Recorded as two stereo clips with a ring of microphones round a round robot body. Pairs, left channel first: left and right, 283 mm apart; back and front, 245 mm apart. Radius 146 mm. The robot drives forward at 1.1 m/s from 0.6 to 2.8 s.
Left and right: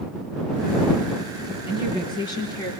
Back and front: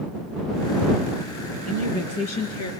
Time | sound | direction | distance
1.6 | a woman speaking | 165° left | 3.5 m